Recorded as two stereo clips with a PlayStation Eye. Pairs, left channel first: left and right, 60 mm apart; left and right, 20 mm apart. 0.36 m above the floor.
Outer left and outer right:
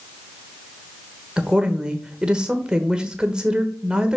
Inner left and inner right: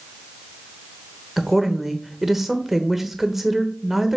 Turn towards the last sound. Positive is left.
turn(degrees=-15)  # may be behind; listen again after turning